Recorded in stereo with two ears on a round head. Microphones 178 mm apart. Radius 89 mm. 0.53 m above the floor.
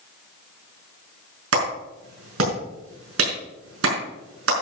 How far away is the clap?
About 5.5 m.